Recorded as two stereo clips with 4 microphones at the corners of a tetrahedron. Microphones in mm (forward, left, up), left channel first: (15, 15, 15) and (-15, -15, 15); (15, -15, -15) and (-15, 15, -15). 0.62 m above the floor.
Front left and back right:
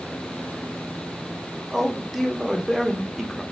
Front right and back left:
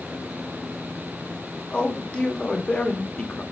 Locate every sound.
1.7 s a man speaking: 50° right, 0.6 m